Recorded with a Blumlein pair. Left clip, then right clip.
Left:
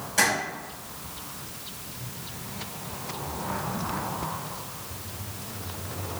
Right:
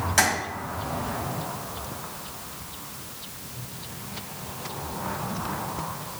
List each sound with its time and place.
0.2 s tapping: 65° right, 1.3 m